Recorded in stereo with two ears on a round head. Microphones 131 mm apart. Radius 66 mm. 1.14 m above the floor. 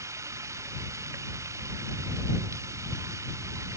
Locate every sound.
0.0 s running water: 20° right (ahead or behind)